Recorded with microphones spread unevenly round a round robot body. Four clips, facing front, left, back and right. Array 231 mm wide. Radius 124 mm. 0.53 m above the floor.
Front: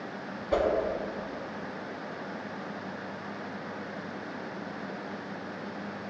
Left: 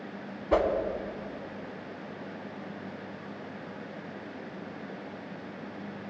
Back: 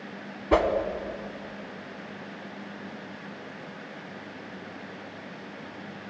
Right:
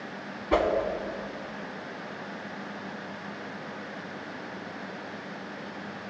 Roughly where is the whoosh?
Behind.